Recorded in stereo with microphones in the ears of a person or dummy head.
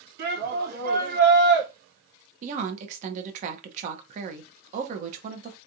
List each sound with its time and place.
0.2 s a shout: 60° right (ahead or behind), 1.8 m
2.4 s a woman speaking: 40° right (ahead or behind), 1.0 m